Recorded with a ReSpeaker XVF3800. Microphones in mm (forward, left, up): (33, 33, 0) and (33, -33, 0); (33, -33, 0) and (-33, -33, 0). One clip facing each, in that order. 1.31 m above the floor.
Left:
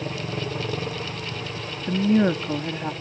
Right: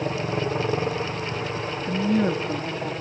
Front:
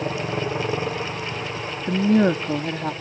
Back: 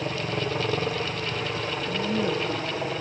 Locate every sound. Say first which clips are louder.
0.0 s a helicopter: right 4 dB, front 3 dB; 60° right; by 3.0 s 130° right
1.9 s a woman speaking: left 3 dB, front 10 dB; 25° left